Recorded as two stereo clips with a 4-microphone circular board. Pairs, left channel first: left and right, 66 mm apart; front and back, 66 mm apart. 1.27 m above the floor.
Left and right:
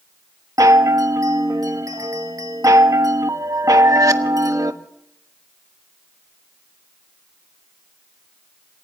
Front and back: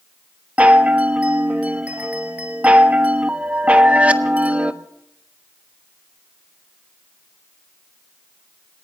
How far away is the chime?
About 1.2 m.